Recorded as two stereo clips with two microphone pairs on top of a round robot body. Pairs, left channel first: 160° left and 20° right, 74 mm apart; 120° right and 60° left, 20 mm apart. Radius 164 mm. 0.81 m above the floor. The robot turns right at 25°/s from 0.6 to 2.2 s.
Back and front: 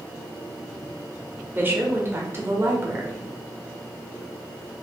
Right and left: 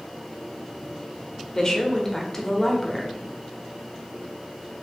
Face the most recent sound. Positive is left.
turn(degrees=-60)